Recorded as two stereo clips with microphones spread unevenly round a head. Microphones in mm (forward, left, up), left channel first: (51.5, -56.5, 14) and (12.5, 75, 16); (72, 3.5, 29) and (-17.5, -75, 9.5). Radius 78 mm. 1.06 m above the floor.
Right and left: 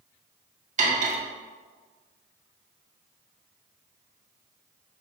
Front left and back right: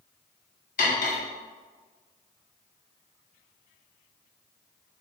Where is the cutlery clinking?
80° left, 1.4 m.